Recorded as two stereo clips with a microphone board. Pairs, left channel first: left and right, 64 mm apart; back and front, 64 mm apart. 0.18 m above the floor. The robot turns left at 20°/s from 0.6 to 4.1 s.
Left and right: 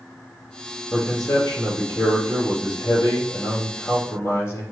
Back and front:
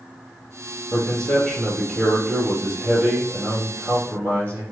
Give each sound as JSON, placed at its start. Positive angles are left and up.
{"t": 0.9, "sound": "a man speaking", "azimuth_deg": 115, "distance_m": 3.5}